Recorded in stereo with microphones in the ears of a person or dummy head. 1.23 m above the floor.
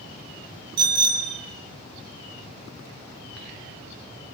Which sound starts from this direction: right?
A bicycle bell, at 0.8 s.